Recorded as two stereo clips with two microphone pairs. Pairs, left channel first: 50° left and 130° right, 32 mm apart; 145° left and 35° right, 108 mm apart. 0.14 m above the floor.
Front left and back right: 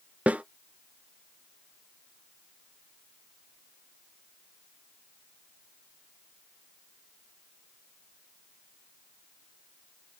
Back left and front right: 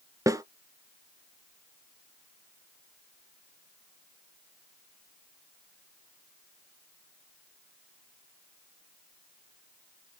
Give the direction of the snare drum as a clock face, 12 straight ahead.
3 o'clock.